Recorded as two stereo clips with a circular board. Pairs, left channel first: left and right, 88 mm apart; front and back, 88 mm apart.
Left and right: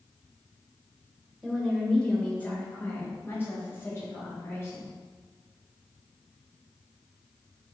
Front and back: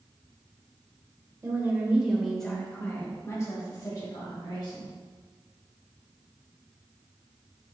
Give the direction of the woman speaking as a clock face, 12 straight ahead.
6 o'clock.